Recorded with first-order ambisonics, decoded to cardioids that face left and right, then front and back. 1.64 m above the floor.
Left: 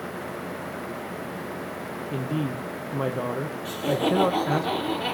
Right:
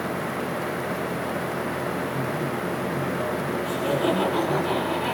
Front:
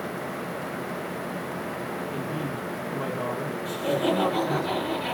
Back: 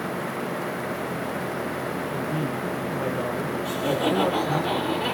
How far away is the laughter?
About 3.5 m.